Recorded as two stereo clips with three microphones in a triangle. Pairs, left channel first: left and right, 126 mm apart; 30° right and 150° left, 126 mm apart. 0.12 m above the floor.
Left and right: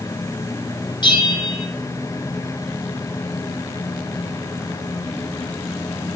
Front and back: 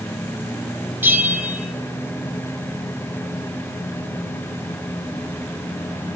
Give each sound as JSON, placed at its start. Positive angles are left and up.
{"t": 1.0, "sound": "a bell", "azimuth_deg": 85, "distance_m": 2.0}